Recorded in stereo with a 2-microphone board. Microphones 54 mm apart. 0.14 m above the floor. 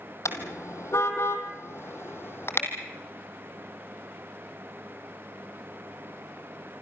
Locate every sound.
0.2 s a car horn: 75° left (ahead or behind), 2 m; by 2.7 s 50° left (ahead or behind), 2.5 m